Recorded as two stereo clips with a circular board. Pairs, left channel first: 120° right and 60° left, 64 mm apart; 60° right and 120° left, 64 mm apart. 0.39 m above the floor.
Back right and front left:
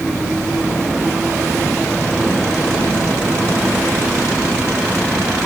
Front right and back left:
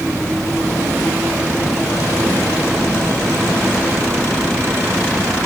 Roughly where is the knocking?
I don't hear knocking.